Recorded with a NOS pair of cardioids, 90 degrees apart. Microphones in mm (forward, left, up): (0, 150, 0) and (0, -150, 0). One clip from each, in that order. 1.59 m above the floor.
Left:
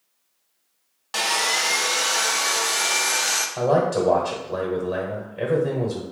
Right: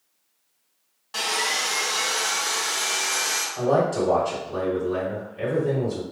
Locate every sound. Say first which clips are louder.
1.1 s sawing: left 3 dB; 35° left, 0.6 m
3.6 s a man speaking: left 1 dB; 45° left, 1.2 m